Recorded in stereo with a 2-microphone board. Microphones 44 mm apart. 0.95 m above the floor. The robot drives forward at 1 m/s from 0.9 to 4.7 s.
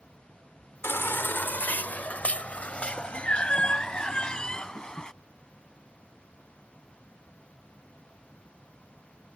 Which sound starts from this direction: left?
A baby crying, at 0.8 s.